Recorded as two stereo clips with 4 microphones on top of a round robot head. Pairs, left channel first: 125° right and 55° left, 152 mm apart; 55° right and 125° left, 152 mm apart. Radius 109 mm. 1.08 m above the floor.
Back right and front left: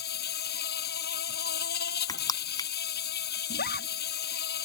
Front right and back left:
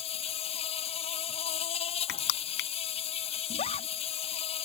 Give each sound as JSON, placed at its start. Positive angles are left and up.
{"t": 0.0, "sound": "an insect", "azimuth_deg": -105}
{"t": 2.1, "sound": "crushing", "azimuth_deg": -60}
{"t": 3.5, "sound": "a scream", "azimuth_deg": -105}